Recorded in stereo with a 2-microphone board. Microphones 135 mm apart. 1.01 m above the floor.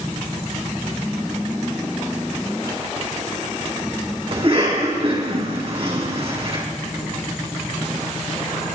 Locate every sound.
4.3 s a cough: 45° right (ahead or behind), 8.5 m